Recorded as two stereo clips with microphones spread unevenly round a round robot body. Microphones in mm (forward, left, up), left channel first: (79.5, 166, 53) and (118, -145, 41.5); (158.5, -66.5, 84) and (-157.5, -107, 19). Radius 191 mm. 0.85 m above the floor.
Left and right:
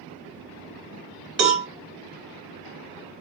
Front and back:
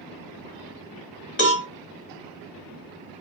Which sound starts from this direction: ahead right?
A cowbell, at 1.4 s.